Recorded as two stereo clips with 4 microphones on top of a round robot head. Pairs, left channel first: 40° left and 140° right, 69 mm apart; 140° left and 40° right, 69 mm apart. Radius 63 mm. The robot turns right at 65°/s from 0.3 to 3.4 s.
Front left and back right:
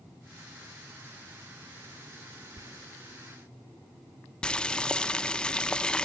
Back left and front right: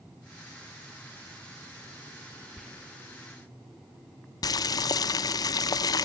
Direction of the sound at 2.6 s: 140° right.